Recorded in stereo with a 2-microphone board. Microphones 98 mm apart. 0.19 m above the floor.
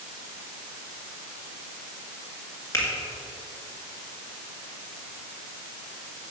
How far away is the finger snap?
About 1.8 m.